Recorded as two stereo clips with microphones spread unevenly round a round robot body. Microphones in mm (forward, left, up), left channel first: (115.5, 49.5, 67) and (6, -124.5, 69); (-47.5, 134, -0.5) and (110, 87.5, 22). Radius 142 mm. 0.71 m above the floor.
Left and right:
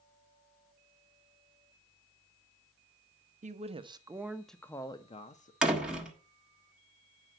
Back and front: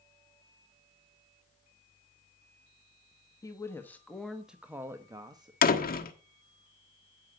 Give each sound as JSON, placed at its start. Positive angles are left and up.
{"t": 3.4, "sound": "a woman speaking", "azimuth_deg": -150, "distance_m": 0.9}
{"t": 5.6, "sound": "a door slam", "azimuth_deg": 150, "distance_m": 1.3}